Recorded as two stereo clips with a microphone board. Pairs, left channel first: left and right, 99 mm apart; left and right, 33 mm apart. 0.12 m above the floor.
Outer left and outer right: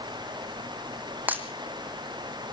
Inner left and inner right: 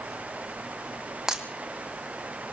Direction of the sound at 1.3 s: 15° right (ahead or behind).